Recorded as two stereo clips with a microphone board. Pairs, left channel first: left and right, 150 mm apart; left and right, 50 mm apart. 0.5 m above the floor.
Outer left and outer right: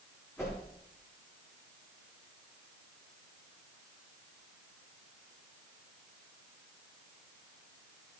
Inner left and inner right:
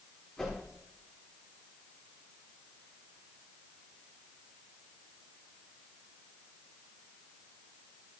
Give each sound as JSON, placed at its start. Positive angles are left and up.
{"t": 0.4, "sound": "a whoosh", "side_deg": 15, "distance_m": 7.0}